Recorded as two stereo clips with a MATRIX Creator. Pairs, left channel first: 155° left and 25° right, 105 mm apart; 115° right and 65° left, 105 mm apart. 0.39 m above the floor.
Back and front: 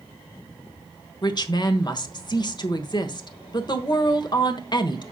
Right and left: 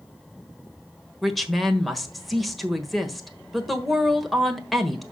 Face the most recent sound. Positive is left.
turn(degrees=160)